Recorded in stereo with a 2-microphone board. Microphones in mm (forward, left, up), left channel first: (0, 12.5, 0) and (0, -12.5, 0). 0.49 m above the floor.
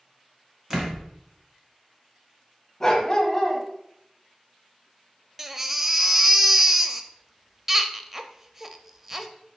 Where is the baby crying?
15° right (ahead or behind), 0.6 m.